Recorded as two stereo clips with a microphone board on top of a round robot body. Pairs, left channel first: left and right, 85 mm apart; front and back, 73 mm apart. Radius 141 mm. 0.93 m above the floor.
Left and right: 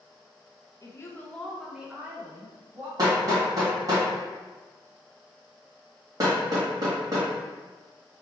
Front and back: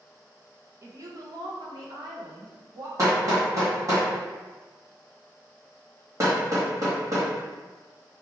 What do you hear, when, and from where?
0.8 s a woman speaking: 135° left, 1.1 m; by 2.9 s 150° right, 2.5 m
3.0 s hammering: 135° right, 1.2 m